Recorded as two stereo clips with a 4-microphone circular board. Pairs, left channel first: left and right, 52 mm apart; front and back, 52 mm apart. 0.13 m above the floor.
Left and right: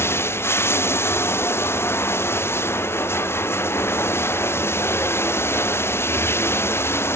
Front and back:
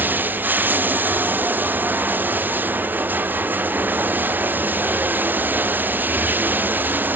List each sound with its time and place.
0.0 s running water: 125° left